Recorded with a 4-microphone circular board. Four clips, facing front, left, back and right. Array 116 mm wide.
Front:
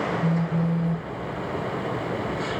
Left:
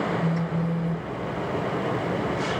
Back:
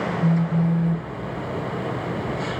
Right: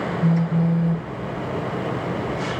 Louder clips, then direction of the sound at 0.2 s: Right 5 dB, back 3 dB; 100° right.